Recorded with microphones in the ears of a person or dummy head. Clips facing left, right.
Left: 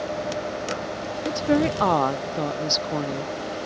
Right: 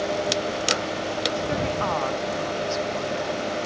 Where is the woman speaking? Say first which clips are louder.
Left 8 dB; 60° left (ahead or behind).